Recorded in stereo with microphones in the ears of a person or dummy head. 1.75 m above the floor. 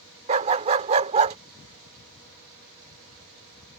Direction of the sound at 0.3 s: 35° right (ahead or behind).